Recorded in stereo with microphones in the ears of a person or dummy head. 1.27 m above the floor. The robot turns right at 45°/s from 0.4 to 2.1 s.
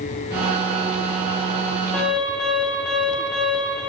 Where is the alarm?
10° left (ahead or behind), 1.8 m; by 3.8 s 5° left (ahead or behind), 1.8 m.